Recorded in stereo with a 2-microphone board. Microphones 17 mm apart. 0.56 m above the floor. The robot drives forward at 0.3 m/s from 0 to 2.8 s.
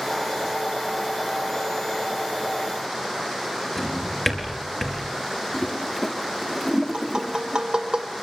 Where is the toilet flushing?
10° left (ahead or behind), 1.0 m.